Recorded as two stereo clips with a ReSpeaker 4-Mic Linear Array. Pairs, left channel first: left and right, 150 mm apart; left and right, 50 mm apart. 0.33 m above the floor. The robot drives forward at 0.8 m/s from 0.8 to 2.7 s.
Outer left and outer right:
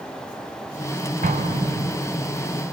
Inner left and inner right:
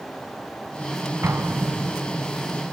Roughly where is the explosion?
Right.